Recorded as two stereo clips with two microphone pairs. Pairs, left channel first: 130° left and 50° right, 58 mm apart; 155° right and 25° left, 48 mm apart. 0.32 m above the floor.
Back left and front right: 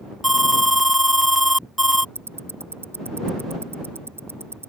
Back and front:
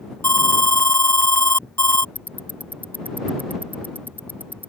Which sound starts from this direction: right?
Ticking, at 2.1 s.